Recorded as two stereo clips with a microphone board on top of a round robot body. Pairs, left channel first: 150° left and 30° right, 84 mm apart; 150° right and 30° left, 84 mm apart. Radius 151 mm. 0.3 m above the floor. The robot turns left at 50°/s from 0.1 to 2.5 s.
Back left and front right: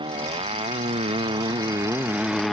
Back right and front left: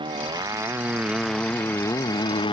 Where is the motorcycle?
Straight ahead; by 2.5 s 120° right.